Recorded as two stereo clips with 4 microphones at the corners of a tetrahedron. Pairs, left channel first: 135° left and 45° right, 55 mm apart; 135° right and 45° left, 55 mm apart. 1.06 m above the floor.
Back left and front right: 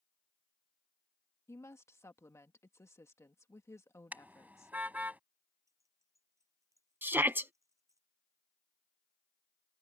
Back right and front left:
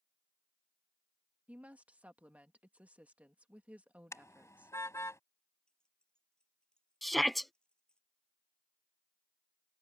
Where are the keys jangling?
60° right.